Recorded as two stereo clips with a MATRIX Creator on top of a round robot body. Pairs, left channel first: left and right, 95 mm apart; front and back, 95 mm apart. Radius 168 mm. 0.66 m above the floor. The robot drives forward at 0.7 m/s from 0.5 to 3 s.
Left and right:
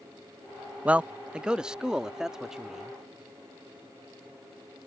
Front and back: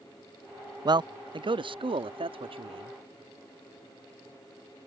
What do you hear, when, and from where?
0.8 s a man speaking: 160° right; by 3.0 s 175° right